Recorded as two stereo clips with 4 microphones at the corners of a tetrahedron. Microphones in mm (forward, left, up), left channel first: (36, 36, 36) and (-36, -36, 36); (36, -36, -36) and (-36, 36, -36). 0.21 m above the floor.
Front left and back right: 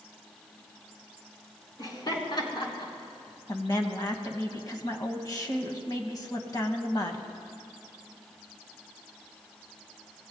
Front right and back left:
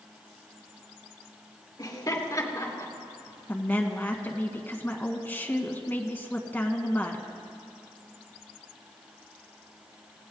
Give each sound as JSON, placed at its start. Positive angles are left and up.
{"t": 1.8, "sound": "laughter", "azimuth_deg": 0, "distance_m": 3.5}
{"t": 3.5, "sound": "a woman speaking", "azimuth_deg": 20, "distance_m": 1.5}